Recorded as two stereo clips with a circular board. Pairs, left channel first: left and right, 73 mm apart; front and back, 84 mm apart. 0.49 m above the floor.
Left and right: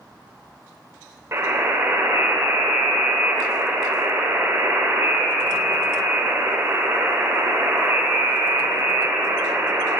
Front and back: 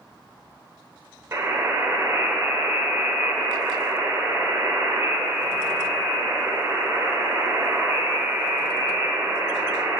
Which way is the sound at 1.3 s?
135° right.